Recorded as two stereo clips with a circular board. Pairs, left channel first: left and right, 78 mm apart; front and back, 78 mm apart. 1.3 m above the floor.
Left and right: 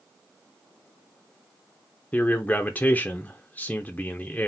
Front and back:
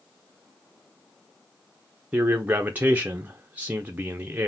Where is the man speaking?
135° left, 0.5 m.